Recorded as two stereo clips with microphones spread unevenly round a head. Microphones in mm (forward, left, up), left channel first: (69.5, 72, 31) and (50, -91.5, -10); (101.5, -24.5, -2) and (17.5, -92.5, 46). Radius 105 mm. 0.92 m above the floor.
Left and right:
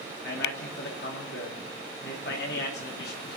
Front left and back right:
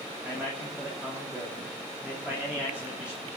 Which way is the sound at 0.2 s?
130° left.